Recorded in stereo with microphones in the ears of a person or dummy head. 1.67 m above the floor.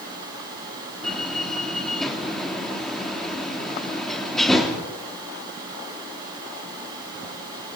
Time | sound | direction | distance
1.0 | a door slam | centre (ahead or behind) | 3 m